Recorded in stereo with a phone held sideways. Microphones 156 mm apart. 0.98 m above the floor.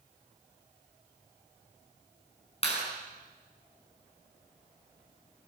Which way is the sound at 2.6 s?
40° left (ahead or behind).